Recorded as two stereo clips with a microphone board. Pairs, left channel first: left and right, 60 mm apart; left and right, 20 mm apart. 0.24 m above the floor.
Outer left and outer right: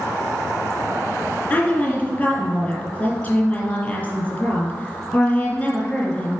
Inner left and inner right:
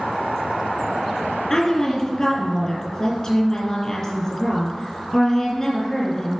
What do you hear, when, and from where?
1.5 s a woman speaking: 30° left (ahead or behind), 2.5 m